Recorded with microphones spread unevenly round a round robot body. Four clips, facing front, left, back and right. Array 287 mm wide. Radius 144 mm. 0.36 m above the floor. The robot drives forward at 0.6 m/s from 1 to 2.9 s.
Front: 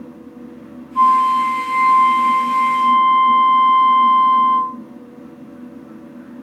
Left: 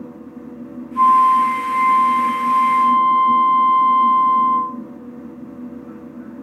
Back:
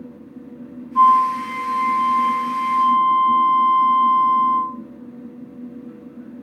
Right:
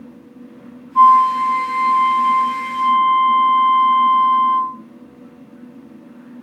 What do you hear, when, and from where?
0.9 s a flute: 125° right, 0.8 m; by 4.8 s 160° right, 1.7 m